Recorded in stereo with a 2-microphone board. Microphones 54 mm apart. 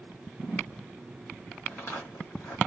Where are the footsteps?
55° left (ahead or behind), 2.0 m.